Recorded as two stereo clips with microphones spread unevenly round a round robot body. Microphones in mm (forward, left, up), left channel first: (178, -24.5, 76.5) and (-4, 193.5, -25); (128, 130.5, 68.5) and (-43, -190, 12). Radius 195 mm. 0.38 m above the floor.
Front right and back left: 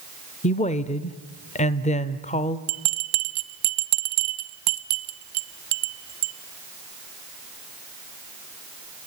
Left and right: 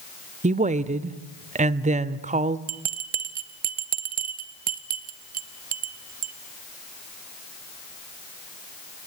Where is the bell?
170° left, 0.6 m.